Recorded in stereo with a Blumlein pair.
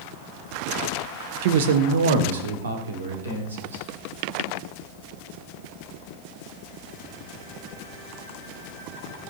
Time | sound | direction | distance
1.4 | a man speaking | 50° right | 0.9 m